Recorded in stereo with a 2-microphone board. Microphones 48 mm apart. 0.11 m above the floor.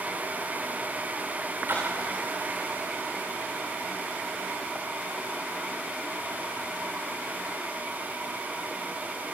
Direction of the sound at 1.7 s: 50° right (ahead or behind).